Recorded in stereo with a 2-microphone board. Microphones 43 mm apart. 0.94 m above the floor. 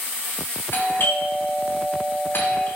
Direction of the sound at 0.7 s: 60° left (ahead or behind).